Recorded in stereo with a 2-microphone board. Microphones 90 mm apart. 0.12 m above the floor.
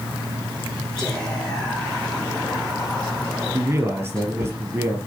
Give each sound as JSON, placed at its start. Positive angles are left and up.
{"t": 1.0, "sound": "whispering", "side_deg": 5, "distance_m": 7.0}
{"t": 3.5, "sound": "a man speaking", "side_deg": -25, "distance_m": 3.0}